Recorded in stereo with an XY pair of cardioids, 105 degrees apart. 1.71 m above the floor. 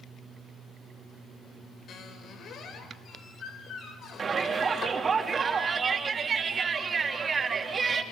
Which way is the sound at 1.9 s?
60° left.